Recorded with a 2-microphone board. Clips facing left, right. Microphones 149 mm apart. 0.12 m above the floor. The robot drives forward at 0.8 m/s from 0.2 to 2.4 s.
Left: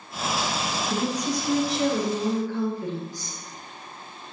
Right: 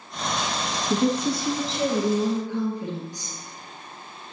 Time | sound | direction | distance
0.9 | a woman speaking | 30° right (ahead or behind) | 1.1 m